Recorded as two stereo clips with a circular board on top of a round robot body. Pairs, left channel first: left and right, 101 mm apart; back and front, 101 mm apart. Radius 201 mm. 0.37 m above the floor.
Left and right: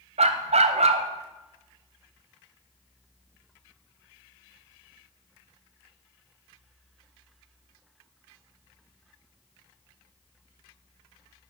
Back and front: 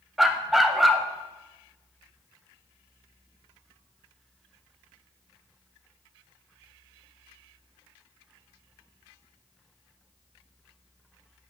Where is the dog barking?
90° right, 0.8 m.